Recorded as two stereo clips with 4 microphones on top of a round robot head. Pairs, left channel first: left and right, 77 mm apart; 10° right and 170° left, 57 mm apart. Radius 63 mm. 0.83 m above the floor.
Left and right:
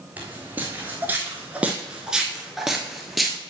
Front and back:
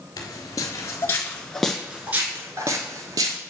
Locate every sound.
0.2 s footsteps: 15° right, 1.1 m; by 3.4 s straight behind, 1.2 m